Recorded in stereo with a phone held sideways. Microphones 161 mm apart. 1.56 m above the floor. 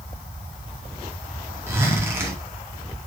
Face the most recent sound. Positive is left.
turn(degrees=-15)  # may be behind; listen again after turning